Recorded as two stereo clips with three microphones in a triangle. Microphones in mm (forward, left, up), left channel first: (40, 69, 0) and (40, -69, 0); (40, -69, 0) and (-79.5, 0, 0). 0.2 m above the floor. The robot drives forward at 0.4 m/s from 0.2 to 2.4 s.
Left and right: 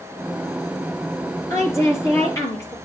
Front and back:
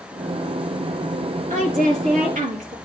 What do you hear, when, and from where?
1.5 s a woman speaking: 155° left, 4.5 m; by 2.8 s 160° left, 4.5 m